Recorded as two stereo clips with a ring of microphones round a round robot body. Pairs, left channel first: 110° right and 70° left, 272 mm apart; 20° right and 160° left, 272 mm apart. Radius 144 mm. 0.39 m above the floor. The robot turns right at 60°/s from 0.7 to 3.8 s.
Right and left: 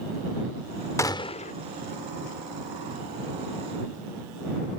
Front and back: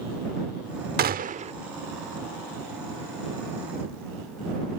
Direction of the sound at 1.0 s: 175° left.